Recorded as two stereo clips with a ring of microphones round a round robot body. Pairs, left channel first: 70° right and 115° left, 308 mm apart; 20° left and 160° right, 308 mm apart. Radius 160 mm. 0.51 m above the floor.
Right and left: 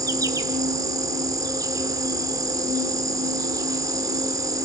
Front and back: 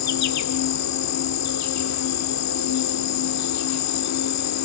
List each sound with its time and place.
0.0 s an insect: 35° left, 1.4 m